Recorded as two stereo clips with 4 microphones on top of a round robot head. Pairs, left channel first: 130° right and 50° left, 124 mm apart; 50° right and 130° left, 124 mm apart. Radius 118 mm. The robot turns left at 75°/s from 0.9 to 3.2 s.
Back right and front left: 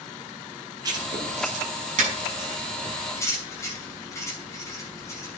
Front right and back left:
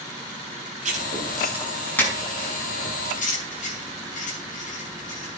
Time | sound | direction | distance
0.8 | writing | 110° left | 6 m